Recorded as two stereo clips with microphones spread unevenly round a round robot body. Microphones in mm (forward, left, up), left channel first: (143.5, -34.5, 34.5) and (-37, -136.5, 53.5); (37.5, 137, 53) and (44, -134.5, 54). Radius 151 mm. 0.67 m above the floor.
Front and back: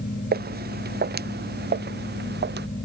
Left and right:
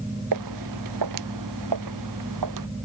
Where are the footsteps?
110° right; by 2.7 s 115° right.